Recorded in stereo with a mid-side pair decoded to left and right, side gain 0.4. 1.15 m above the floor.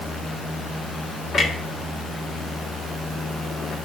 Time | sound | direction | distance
1.3 | a clunk | 60° left | 1.8 m